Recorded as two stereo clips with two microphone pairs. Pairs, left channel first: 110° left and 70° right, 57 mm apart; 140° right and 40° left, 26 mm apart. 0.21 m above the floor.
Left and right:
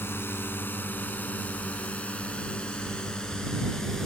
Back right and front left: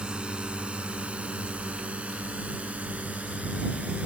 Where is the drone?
80° left; by 4.1 s 35° left.